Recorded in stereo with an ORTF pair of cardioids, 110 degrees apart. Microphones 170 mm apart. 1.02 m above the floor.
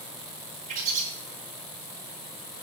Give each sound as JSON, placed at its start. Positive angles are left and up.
{"t": 0.7, "sound": "a bird", "azimuth_deg": -55, "distance_m": 7.0}